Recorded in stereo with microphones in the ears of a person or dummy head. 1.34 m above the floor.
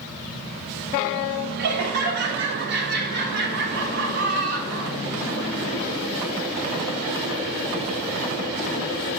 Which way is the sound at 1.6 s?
50° right (ahead or behind).